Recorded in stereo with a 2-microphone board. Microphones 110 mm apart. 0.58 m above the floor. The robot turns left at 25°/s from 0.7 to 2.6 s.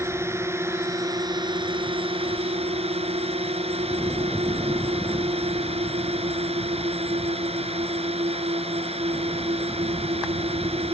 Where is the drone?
25° right; by 10.9 s 75° right.